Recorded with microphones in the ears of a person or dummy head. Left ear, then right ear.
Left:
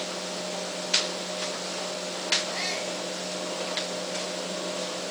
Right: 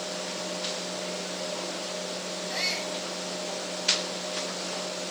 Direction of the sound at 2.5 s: 30° right (ahead or behind).